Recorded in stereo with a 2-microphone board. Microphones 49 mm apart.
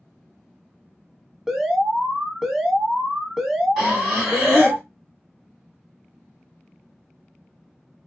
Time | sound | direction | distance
1.5 | an alarm | 10° right (ahead or behind) | 0.7 m
3.8 | breathing | centre (ahead or behind) | 1.6 m